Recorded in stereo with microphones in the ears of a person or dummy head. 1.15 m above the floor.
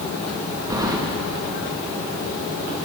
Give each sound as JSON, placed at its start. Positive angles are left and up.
{"t": 0.7, "sound": "keys jangling", "side_deg": -20, "distance_m": 0.9}